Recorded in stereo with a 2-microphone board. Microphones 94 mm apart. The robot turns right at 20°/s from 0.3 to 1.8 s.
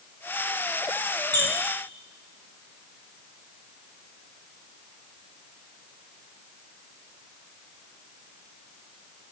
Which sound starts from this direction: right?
A squeak, at 1.3 s.